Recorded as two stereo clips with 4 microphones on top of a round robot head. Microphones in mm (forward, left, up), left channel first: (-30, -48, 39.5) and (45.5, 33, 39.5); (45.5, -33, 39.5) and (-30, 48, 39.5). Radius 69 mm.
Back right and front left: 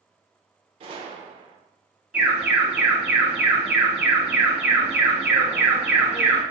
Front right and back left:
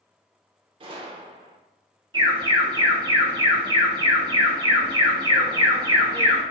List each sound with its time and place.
0.8 s a gunshot: 90° left, 0.8 m
2.1 s an alarm: 120° left, 1.9 m